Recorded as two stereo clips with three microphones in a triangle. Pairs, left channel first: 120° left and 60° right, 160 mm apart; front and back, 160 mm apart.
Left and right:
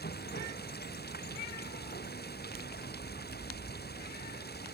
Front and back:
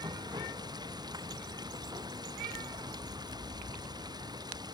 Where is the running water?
115° left.